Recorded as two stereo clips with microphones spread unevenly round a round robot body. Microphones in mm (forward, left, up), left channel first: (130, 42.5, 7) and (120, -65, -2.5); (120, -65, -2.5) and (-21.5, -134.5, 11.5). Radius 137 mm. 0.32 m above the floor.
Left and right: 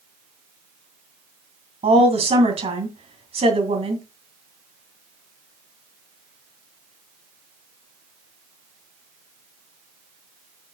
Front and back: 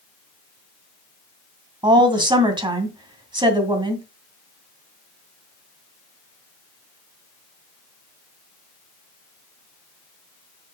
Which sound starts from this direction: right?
A woman speaking, at 1.8 s.